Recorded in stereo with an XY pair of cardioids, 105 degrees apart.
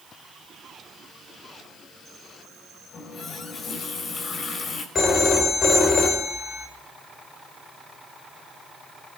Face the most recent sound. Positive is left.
turn(degrees=50)